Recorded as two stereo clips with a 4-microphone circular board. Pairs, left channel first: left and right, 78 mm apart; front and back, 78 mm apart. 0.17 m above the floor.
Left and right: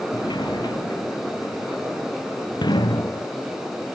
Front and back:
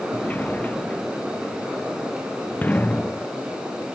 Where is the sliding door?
70° left.